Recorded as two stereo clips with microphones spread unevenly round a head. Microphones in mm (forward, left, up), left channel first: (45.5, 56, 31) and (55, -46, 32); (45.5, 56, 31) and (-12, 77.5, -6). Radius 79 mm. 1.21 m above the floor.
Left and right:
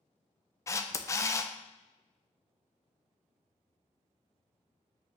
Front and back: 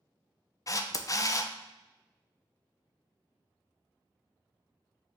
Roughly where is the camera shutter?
Ahead left.